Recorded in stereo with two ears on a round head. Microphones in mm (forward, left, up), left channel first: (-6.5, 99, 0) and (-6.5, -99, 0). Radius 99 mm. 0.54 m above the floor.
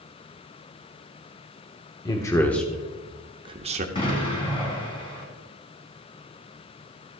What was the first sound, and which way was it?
A man speaking, 20° left (ahead or behind).